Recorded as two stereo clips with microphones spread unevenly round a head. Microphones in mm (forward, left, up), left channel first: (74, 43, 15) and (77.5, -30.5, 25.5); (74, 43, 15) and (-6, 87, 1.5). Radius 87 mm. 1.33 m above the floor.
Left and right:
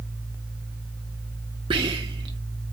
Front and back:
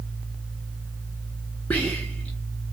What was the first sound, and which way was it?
Whispering, 110° right.